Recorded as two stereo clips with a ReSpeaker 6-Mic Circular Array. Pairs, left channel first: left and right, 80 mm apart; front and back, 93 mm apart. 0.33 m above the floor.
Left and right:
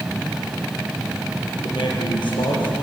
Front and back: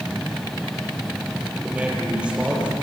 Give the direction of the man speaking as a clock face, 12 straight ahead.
9 o'clock.